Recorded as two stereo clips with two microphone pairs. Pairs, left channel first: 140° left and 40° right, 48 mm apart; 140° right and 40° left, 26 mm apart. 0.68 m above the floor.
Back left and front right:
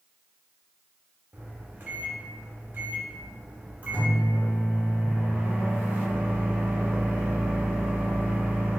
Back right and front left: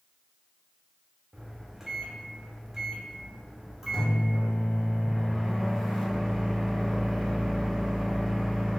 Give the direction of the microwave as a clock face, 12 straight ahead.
1 o'clock.